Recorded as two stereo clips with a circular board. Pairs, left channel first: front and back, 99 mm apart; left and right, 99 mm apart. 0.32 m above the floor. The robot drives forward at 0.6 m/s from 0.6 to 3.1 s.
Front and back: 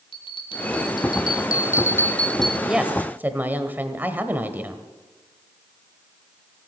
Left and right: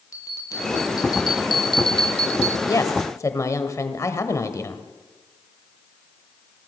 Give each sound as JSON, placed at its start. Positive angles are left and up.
{"t": 0.1, "sound": "a bell", "azimuth_deg": 35, "distance_m": 1.4}
{"t": 2.7, "sound": "a woman speaking", "azimuth_deg": 100, "distance_m": 1.0}